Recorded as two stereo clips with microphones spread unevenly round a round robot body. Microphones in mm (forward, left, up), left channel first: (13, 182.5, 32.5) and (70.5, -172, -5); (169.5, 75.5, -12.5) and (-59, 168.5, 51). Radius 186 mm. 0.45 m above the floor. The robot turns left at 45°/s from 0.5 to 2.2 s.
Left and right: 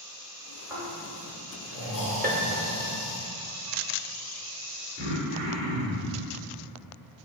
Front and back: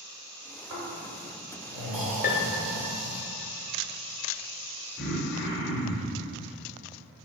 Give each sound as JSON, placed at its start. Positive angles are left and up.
{"t": 0.7, "sound": "snoring", "azimuth_deg": -160, "distance_m": 2.0}
{"t": 2.2, "sound": "a piano", "azimuth_deg": -30, "distance_m": 0.7}
{"t": 5.0, "sound": "throat clearing", "azimuth_deg": -85, "distance_m": 1.5}